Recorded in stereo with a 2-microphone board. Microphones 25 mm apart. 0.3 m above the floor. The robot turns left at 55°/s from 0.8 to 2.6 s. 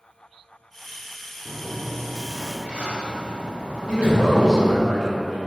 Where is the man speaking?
35° left (ahead or behind), 1.9 m.